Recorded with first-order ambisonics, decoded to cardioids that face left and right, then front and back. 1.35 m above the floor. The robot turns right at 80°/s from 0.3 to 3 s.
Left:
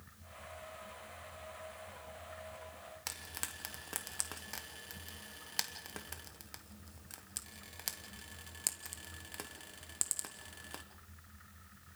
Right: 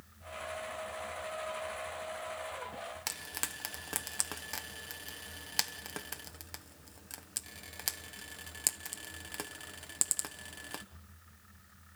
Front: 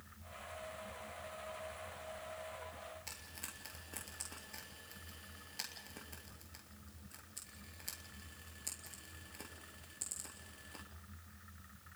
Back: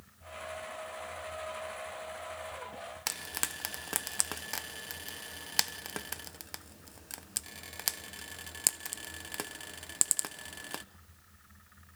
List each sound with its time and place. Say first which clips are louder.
3.1 s frying: right 2 dB, back 13 dB; 165° right, 1.0 m